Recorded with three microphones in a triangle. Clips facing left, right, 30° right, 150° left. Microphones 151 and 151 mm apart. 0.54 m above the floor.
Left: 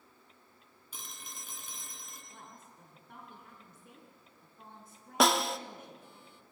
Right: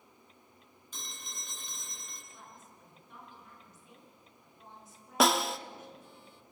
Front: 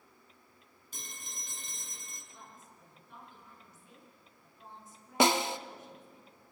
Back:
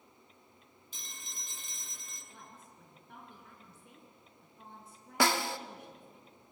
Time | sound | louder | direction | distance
0.9 | a phone ringing | right 1 dB, front 3 dB | 5° left | 3.5 m
2.3 | a woman speaking | left 1 dB, even | 120° left | 5.5 m
5.2 | a snare drum | even, front 3 dB | straight ahead | 0.7 m